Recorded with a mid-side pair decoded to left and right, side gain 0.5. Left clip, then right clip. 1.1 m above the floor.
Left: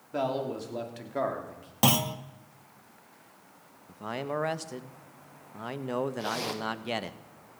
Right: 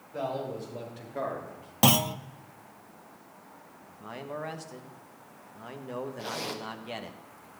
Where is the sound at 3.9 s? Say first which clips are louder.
Left 6 dB; 45° left, 0.9 m.